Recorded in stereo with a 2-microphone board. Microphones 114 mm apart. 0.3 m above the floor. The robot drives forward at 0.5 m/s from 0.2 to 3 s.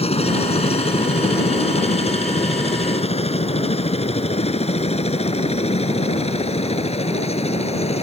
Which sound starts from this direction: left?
A helicopter, at 0.0 s.